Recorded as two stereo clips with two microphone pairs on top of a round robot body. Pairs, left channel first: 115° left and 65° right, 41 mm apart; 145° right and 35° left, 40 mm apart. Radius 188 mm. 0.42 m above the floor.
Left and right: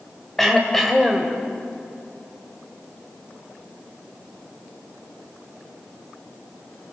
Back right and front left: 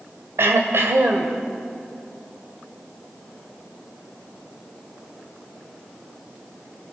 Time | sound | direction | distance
0.4 | throat clearing | 35° left | 2.5 m